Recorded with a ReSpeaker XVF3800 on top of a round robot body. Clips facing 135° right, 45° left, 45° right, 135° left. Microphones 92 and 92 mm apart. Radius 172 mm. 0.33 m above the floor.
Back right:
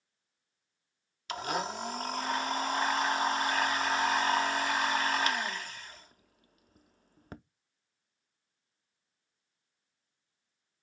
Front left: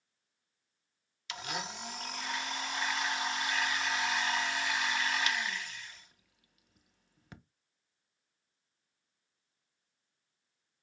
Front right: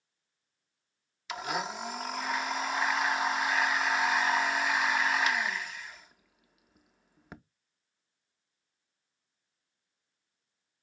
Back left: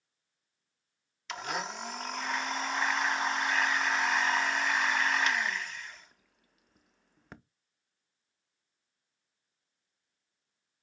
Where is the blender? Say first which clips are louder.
Back right 7 dB, front right 2 dB; 130° right, 0.5 m.